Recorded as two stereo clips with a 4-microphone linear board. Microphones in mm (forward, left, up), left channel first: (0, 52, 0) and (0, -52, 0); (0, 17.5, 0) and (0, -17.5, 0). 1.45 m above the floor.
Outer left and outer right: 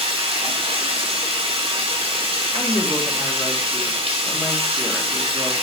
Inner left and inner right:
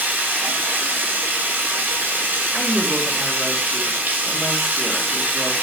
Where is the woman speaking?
Centre (ahead or behind), 2.5 m.